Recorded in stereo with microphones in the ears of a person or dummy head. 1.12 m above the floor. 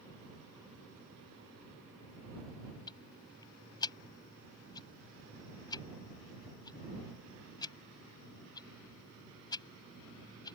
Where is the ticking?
20° left (ahead or behind).